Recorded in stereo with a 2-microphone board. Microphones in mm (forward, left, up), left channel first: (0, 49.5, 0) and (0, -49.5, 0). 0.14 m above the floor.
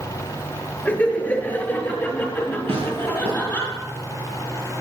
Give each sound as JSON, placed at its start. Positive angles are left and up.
{"t": 0.8, "sound": "laughter", "side_deg": 15, "distance_m": 2.5}
{"t": 2.7, "sound": "tearing paper", "side_deg": -85, "distance_m": 7.0}